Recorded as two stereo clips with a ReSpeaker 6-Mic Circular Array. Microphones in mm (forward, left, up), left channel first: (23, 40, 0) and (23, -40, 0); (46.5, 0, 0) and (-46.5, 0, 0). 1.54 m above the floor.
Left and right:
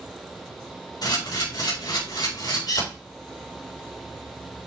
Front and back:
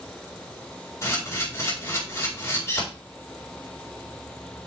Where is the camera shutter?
60° left, 4.5 m.